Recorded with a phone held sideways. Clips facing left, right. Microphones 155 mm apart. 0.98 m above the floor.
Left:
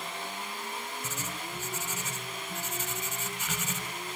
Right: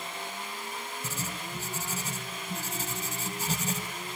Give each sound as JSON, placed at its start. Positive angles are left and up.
{"t": 1.0, "sound": "writing", "side_deg": -40, "distance_m": 1.0}